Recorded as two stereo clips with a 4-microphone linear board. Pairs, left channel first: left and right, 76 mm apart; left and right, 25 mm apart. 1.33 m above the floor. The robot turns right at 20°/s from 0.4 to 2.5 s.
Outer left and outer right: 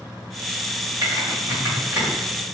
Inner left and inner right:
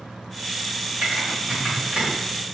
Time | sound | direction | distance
1.0 | typing on a keyboard | 60° right (ahead or behind) | 1.8 m